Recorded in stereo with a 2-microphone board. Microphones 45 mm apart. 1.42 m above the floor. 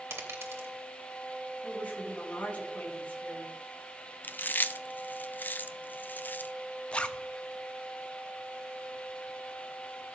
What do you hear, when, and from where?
0.1 s a dropped coin: 65° right (ahead or behind), 2.5 m
1.6 s a woman speaking: 35° left (ahead or behind), 3.5 m
4.2 s chewing: 45° left (ahead or behind), 0.5 m
6.9 s a zipper: 25° left (ahead or behind), 0.6 m